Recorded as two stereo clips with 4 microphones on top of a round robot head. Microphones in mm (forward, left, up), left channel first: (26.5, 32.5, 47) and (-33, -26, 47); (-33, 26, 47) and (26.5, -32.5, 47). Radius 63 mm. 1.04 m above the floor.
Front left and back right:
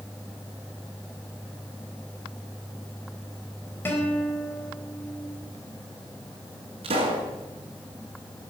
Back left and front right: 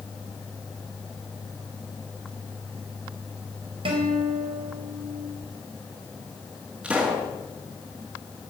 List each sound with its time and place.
3.9 s a guitar: 25° right, 4 m
6.8 s a pop: 125° right, 4.5 m